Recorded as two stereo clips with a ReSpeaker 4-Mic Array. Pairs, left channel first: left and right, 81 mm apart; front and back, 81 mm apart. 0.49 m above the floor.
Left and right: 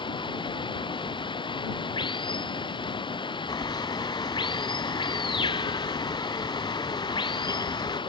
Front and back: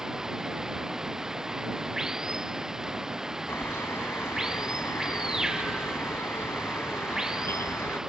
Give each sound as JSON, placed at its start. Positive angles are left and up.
{"t": 0.0, "sound": "running water", "azimuth_deg": 95}
{"t": 3.5, "sound": "a bird", "azimuth_deg": 60}